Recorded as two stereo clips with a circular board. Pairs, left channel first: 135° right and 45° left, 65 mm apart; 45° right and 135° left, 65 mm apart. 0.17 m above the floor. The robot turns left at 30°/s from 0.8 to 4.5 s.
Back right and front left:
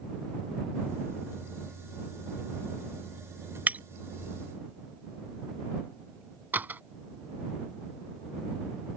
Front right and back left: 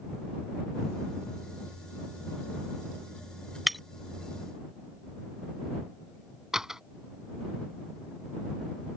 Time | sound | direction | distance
3.7 | breaking glass | 50° left | ?
6.5 | a door slam | 60° left | ?